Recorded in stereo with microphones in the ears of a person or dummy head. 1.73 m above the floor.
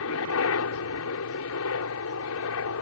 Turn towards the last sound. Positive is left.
turn(degrees=75)  # may be behind; listen again after turning